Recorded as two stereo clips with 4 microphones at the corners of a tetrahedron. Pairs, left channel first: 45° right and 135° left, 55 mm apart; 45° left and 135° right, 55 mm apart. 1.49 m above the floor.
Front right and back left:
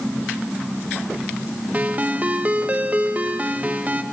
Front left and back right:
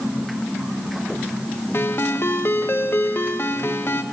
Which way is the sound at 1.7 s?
80° left.